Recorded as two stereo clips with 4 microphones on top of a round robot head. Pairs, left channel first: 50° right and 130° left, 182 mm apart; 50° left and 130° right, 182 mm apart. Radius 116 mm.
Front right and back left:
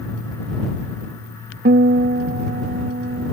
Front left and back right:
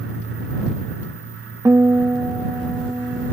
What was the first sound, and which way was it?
A guitar, 155° left.